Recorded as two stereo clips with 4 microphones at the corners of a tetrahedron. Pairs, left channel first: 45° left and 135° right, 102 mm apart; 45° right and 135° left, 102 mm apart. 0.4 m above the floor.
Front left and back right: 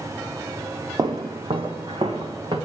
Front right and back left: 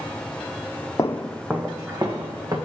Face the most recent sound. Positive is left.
turn(degrees=-175)